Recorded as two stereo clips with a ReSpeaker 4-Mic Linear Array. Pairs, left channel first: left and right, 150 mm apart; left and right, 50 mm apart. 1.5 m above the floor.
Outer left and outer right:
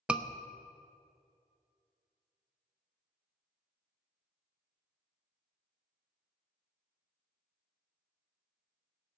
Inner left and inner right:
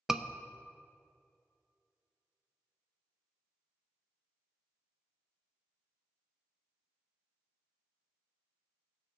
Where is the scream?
5° right (ahead or behind), 0.7 m.